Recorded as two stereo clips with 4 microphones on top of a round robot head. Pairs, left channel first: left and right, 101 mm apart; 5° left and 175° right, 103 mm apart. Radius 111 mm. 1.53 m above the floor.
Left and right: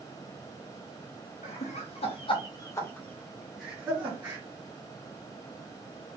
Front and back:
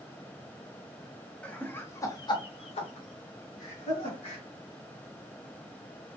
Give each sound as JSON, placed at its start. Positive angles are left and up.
{"t": 1.4, "sound": "laughter", "azimuth_deg": 85, "distance_m": 1.3}